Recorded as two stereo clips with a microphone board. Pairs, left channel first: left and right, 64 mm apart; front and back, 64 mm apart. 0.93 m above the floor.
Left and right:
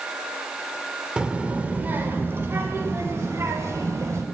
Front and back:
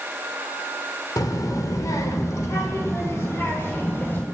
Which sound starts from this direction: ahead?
A child speaking, at 1.2 s.